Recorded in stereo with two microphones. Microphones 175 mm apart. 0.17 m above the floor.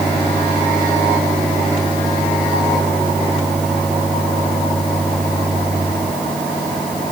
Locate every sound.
Only background noise.